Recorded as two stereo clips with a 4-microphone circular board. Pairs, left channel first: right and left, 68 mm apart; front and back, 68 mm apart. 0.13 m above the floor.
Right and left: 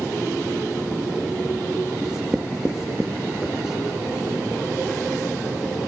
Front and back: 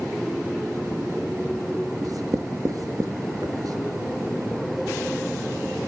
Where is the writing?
170° left, 0.7 m.